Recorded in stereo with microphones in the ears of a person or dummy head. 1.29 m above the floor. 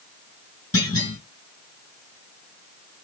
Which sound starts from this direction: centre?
A clunk, at 0.7 s.